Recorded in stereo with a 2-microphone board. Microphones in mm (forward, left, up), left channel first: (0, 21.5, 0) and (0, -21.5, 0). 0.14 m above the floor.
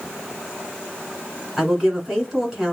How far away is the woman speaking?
About 1.6 m.